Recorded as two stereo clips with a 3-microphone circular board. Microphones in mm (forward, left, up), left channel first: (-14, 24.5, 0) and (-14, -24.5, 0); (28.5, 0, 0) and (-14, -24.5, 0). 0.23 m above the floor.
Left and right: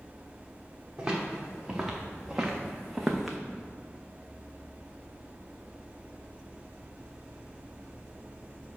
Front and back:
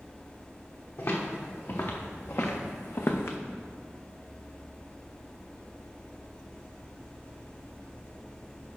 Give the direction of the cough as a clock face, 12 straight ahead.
No cough in this recording.